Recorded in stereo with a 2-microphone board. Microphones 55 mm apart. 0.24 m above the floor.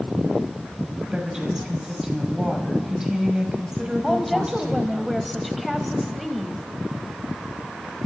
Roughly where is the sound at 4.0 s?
Centre.